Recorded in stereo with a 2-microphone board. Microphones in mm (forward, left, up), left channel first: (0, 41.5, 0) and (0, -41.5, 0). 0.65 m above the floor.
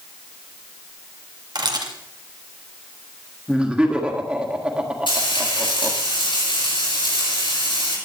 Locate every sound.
1.6 s a camera shutter: 60° right (ahead or behind), 2.0 m
3.5 s laughter: 15° right (ahead or behind), 1.6 m
5.1 s frying: 85° left, 8.5 m